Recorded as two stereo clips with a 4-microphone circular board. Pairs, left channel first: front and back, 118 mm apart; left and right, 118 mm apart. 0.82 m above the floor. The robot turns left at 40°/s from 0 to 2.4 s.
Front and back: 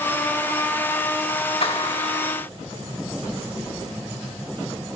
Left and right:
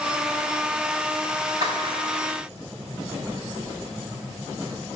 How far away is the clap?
About 5.5 m.